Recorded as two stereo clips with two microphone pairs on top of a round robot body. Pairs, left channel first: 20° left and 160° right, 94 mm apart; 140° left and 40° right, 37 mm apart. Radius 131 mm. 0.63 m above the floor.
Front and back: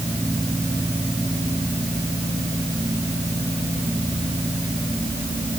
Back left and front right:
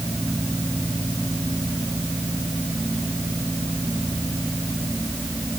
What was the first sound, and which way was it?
Only background noise.